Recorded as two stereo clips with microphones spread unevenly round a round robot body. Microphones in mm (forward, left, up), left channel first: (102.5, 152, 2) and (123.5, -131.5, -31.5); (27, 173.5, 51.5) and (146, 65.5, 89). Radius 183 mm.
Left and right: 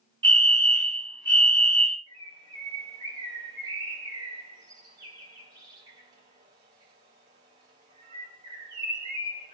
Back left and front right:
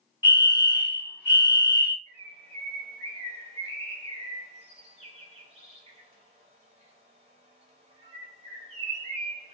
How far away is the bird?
About 1.0 m.